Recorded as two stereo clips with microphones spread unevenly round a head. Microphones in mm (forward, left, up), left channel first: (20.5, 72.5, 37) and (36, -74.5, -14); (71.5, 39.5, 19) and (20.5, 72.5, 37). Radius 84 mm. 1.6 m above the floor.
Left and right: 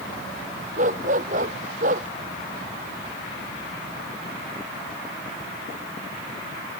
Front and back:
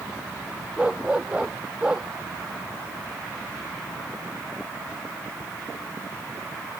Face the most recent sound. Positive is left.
turn(degrees=-130)